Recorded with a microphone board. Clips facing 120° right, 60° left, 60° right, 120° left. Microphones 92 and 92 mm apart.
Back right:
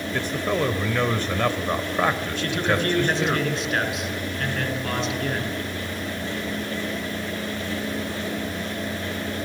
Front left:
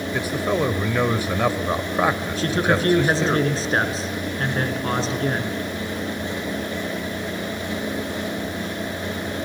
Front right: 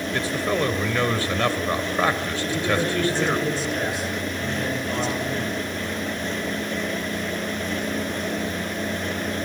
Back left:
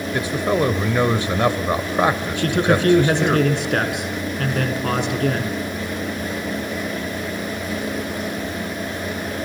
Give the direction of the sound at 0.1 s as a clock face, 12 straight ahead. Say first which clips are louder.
Front left 2 dB, back left 4 dB; 8 o'clock.